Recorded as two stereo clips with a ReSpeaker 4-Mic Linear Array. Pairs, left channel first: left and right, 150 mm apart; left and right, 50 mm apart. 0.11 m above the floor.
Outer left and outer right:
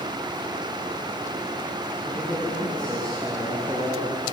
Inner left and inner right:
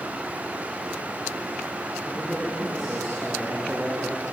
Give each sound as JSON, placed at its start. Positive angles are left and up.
{"t": 2.0, "sound": "a man speaking", "side_deg": 10, "distance_m": 8.0}